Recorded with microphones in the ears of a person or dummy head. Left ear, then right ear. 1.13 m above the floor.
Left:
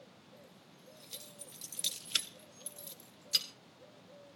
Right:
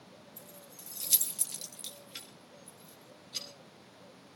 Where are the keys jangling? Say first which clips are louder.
Right 6 dB; 85° right, 2 m; by 3.5 s 65° left (ahead or behind), 3 m.